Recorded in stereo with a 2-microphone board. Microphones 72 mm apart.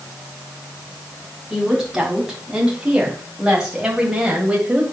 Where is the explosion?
I don't hear an explosion.